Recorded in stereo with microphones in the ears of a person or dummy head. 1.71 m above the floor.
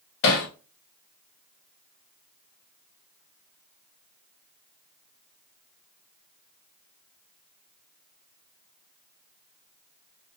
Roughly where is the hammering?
Left.